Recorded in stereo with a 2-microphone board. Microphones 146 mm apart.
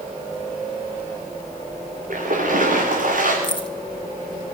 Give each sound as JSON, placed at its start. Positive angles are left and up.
{"t": 2.1, "sound": "a splash", "side_deg": -70, "distance_m": 6.0}
{"t": 3.4, "sound": "keys jangling", "side_deg": 35, "distance_m": 1.5}